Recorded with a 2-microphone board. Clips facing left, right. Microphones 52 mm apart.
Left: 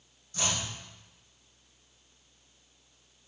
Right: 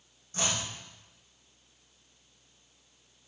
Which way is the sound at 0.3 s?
30° right (ahead or behind).